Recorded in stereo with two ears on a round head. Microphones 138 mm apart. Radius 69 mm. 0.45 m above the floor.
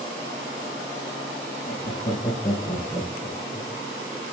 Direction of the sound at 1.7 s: 40° left (ahead or behind).